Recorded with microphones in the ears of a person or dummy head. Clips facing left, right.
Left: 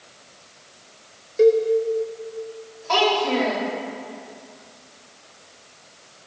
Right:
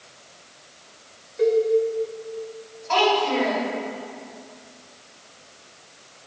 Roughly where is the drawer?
I don't hear a drawer.